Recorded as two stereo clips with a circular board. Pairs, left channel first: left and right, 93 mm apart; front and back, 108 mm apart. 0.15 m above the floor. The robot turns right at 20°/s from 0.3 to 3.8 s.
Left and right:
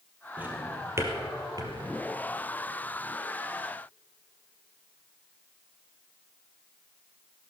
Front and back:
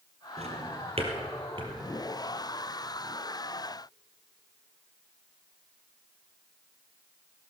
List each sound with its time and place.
0.4 s a drawer: 165° right, 2.5 m; by 1.7 s 135° right, 2.5 m